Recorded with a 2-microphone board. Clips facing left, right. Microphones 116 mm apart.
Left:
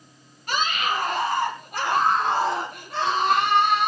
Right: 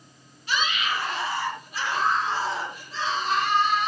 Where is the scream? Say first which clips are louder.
Left 2 dB; 50° left (ahead or behind), 7.5 m; by 3.9 s 70° left (ahead or behind), 7.5 m.